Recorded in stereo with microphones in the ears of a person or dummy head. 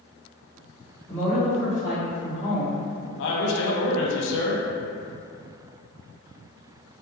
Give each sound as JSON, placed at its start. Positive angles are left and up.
{"t": 1.1, "sound": "a woman speaking", "side_deg": 5, "distance_m": 1.1}
{"t": 3.2, "sound": "a man speaking", "side_deg": 70, "distance_m": 0.6}